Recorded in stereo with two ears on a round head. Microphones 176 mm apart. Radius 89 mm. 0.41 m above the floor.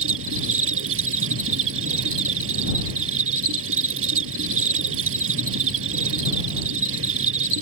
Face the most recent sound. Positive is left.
turn(degrees=-80)